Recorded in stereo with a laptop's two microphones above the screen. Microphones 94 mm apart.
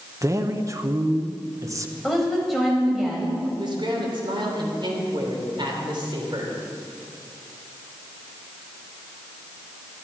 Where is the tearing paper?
No tearing paper in this recording.